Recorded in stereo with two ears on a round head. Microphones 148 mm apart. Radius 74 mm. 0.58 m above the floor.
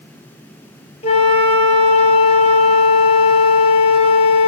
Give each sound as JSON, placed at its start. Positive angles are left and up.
{"t": 1.0, "sound": "a flute", "side_deg": 35, "distance_m": 5.5}